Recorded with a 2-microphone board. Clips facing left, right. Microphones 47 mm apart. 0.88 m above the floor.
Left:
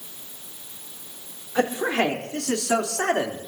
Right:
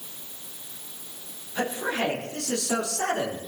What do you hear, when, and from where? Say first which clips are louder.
1.6 s a man speaking: left 5 dB; 70° left (ahead or behind), 3 m; by 3.4 s 50° left (ahead or behind), 2.0 m